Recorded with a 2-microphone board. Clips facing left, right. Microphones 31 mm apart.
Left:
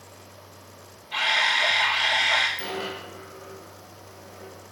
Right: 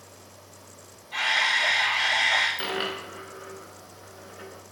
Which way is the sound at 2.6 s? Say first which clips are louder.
Right 2 dB; 50° right (ahead or behind).